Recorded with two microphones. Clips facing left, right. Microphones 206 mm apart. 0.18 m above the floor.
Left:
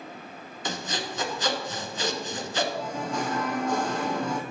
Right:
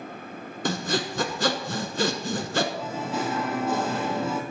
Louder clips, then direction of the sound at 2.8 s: Right 1 dB; 5° right (ahead or behind).